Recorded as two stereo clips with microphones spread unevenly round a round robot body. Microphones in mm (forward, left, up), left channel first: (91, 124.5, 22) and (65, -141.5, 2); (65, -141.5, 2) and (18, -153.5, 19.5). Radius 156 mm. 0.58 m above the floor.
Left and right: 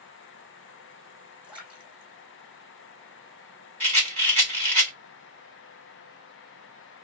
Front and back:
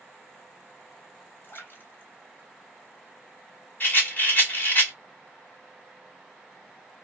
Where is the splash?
10° right, 1.8 m.